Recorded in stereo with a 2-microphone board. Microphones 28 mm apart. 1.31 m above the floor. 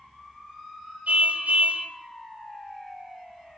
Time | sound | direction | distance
1.1 | a car horn | 60° right (ahead or behind) | 3.5 m